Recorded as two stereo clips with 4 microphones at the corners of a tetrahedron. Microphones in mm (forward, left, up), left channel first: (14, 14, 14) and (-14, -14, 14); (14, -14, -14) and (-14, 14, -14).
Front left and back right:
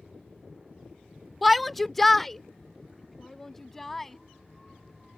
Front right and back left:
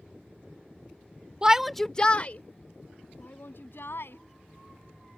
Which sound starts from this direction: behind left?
A shout, at 1.4 s.